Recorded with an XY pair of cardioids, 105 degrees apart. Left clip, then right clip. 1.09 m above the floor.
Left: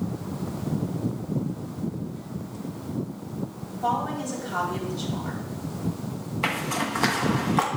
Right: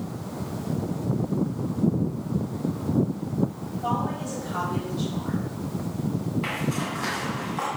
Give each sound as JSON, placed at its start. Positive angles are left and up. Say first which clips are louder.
{"t": 3.8, "sound": "a woman speaking", "louder": "left 2 dB", "azimuth_deg": 30, "distance_m": 3.0}
{"t": 6.4, "sound": "a zipper", "louder": "left 6 dB", "azimuth_deg": 55, "distance_m": 1.1}